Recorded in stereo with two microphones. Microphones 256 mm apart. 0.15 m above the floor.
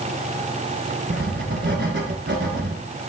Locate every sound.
1.1 s writing: 45° right (ahead or behind), 1.6 m